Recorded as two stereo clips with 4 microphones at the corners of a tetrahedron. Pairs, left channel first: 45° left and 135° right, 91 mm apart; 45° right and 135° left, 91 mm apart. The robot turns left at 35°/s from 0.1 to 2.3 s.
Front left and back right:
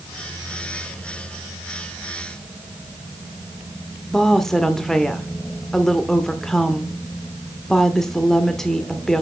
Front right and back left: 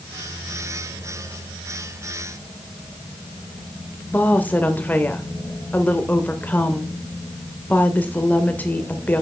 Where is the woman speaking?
30° right, 0.8 m.